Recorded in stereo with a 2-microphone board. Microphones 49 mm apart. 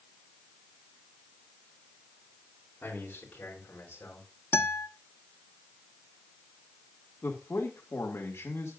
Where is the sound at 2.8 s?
40° left (ahead or behind), 3.5 m; by 4.3 s 35° left (ahead or behind), 4.5 m.